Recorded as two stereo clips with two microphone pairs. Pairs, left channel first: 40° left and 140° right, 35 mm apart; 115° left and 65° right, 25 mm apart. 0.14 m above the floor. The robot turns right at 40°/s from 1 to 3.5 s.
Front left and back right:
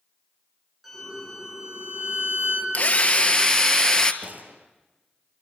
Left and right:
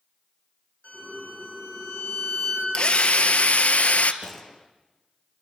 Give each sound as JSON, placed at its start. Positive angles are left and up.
{"t": 0.8, "sound": "a violin", "azimuth_deg": 135, "distance_m": 7.5}
{"t": 2.7, "sound": "a drill", "azimuth_deg": 80, "distance_m": 1.3}
{"t": 4.2, "sound": "a gunshot", "azimuth_deg": -160, "distance_m": 2.5}